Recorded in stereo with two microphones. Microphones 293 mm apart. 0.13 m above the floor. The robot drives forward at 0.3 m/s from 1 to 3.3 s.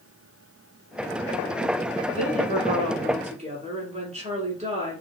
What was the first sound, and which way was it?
A woman speaking, 25° right (ahead or behind).